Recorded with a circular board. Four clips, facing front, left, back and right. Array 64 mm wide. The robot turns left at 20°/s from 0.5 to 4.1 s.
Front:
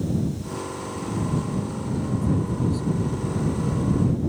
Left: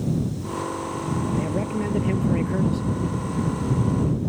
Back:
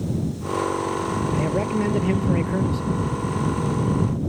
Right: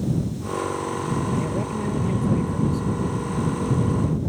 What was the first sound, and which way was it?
A man speaking, 175° left.